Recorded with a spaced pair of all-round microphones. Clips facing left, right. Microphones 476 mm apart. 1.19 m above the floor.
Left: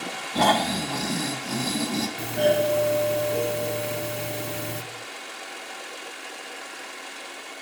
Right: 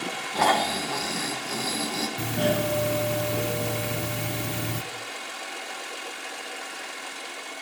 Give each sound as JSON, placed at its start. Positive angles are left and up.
{"t": 0.3, "sound": "snoring", "side_deg": 55, "distance_m": 1.2}
{"t": 2.2, "sound": "a doorbell", "side_deg": -25, "distance_m": 0.6}